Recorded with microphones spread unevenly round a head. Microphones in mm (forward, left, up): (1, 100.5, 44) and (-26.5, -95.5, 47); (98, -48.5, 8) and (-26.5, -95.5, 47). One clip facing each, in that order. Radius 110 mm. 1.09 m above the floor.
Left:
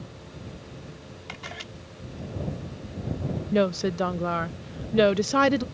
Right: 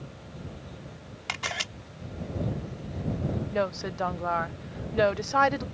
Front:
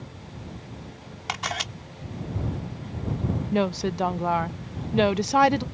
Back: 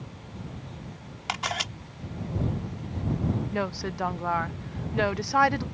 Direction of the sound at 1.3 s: 70° right.